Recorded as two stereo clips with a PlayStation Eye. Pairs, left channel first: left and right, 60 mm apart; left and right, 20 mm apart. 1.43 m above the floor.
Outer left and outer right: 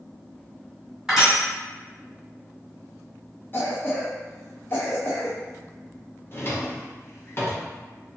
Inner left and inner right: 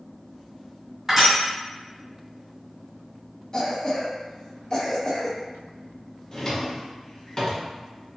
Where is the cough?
35° left (ahead or behind), 0.5 m.